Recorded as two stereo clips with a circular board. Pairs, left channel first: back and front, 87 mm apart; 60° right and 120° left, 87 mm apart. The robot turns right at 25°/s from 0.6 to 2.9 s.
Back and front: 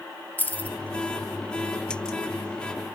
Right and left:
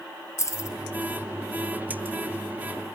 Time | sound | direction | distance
0.4 | keys jangling | 110° right | 2.0 m